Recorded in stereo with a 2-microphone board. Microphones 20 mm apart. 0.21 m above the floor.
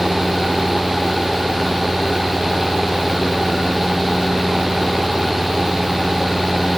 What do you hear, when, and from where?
Only background noise.